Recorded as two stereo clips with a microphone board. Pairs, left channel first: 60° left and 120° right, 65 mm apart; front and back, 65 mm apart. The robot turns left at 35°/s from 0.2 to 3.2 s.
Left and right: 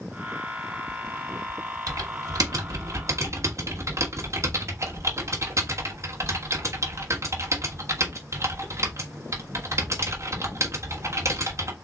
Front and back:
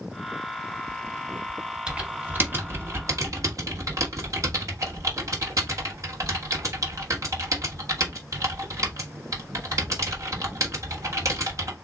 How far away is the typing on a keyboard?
About 1.3 m.